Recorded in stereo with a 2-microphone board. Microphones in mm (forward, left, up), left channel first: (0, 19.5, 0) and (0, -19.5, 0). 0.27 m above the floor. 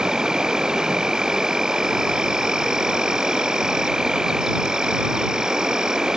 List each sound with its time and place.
0.0 s an insect: 15° right (ahead or behind)